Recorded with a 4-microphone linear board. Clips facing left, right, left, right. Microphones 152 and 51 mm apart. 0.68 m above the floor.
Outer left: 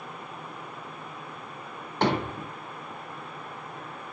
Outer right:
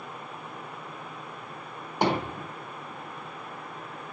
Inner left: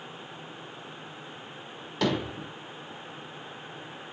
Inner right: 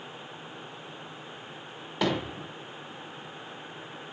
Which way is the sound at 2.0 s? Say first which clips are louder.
Even, inner left 1 dB; 10° right (ahead or behind).